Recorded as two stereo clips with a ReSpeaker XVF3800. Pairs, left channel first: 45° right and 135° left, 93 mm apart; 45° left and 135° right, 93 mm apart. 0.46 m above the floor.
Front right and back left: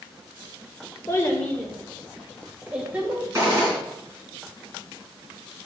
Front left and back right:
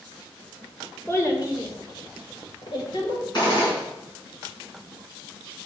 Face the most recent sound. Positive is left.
turn(degrees=80)